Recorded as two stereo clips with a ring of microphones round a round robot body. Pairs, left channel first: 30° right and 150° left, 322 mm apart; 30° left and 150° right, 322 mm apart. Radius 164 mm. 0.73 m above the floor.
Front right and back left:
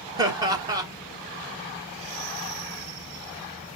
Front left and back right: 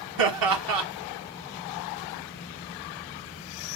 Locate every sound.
0.2 s laughter: 130° right, 1.8 m